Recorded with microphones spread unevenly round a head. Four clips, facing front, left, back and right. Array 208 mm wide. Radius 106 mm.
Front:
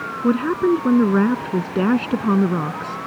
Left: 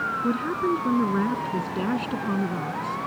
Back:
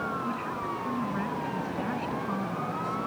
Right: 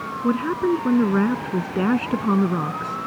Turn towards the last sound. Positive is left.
turn(degrees=-20)